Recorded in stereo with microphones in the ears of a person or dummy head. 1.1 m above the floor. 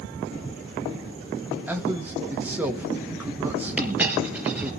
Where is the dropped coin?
10° right (ahead or behind), 3.5 m.